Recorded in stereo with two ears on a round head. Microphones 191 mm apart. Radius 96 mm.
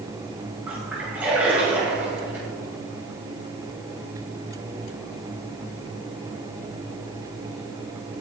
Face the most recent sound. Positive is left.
turn(degrees=-10)  # may be behind; listen again after turning